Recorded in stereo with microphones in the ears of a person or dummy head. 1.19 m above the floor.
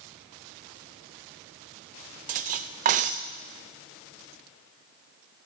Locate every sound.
2.3 s cutlery clinking: 45° right (ahead or behind), 0.5 m